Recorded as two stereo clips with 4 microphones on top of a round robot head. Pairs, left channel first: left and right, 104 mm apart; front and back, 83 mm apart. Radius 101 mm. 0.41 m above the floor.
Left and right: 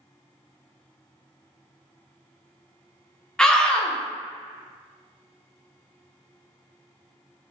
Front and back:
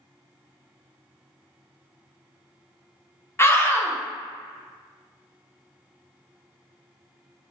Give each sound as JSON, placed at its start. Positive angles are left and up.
{"t": 3.4, "sound": "a scream", "azimuth_deg": 15, "distance_m": 0.8}